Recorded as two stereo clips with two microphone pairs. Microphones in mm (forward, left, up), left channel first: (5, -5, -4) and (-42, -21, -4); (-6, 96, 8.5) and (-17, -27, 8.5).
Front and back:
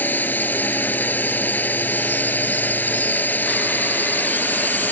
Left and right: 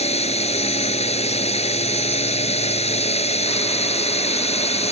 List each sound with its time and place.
0.0 s a drone: 65° left